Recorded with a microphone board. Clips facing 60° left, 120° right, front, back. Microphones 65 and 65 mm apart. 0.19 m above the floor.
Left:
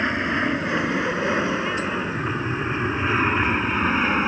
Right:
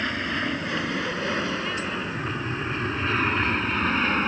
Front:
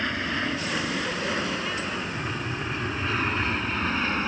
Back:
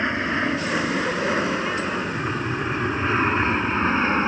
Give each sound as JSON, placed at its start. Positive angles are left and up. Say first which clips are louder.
{"t": 0.0, "sound": "an aircraft", "louder": "left 5 dB, back 5 dB", "azimuth_deg": 120}